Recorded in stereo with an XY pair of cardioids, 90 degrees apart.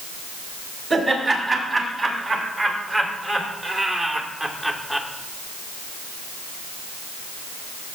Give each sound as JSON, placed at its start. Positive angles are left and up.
{"t": 0.9, "sound": "laughter", "azimuth_deg": -40, "distance_m": 4.0}